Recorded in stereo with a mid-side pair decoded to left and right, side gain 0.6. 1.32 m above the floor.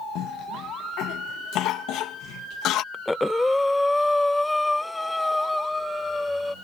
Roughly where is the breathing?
Ahead.